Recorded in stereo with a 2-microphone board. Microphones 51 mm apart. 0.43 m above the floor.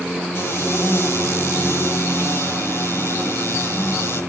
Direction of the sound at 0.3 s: 75° left (ahead or behind).